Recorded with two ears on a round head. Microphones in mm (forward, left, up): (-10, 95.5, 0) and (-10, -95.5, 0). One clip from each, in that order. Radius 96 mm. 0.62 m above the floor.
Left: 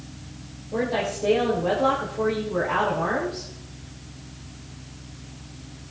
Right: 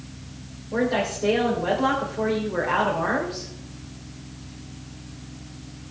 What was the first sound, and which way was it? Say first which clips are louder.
A woman speaking: right 1 dB; 50° right (ahead or behind).